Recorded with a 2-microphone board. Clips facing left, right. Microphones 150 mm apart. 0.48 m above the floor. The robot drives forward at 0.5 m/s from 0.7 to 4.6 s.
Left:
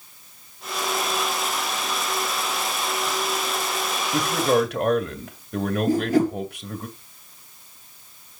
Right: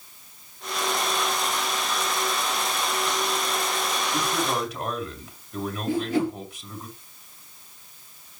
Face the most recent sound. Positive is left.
turn(degrees=40)  # may be behind; listen again after turning